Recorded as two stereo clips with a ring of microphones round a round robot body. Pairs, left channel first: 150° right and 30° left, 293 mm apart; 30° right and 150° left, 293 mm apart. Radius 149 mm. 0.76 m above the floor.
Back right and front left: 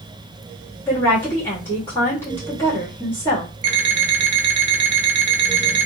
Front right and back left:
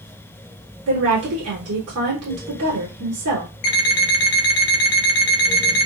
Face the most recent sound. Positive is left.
turn(degrees=-10)